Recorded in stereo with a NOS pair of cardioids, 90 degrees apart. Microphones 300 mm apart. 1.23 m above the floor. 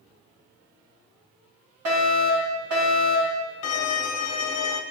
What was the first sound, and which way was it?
A fire alarm, 65° right.